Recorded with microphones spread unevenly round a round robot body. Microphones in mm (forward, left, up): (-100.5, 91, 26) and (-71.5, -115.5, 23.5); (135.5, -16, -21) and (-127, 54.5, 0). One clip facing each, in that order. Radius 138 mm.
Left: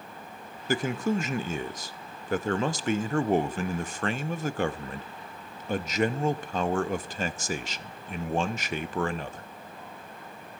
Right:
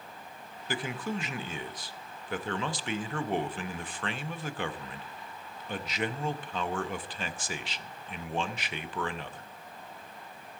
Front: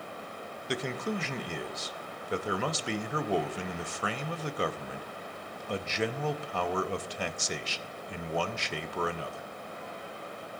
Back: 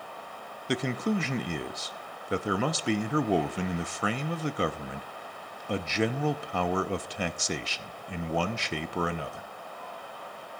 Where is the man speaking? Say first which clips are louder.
Left 7 dB, back 5 dB; 145° left, 0.8 m.